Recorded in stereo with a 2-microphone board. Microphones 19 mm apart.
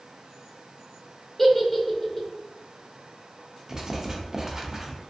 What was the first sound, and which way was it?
A giggle, 5° left (ahead or behind).